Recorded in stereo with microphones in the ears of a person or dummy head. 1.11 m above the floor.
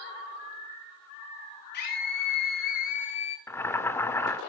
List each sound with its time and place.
1.7 s a scream: 50° left (ahead or behind), 1.9 m; by 3.4 s 25° left (ahead or behind), 0.7 m
3.5 s boiling: 15° left (ahead or behind), 1.8 m